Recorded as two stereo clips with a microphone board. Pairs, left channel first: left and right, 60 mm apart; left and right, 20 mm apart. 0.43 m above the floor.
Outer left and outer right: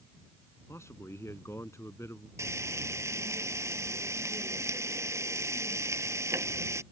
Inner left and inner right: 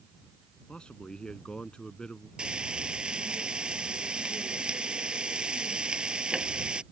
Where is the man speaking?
50° left (ahead or behind).